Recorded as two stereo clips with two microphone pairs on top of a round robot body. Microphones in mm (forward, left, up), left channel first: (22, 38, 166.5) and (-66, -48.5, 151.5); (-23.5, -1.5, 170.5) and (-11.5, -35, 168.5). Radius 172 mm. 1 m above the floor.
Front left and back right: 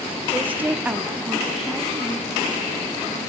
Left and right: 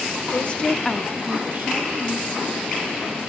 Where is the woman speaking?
155° left, 1.2 m; by 3.2 s 40° right, 3 m.